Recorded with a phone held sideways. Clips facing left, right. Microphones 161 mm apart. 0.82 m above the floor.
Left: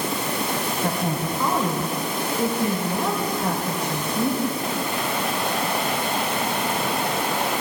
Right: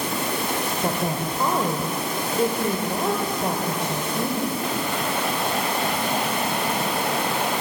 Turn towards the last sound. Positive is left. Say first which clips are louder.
# even
turn(degrees=-30)  # may be behind; listen again after turning